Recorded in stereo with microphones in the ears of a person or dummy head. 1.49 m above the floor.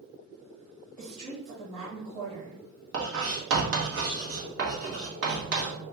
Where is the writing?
70° right (ahead or behind), 1.3 m.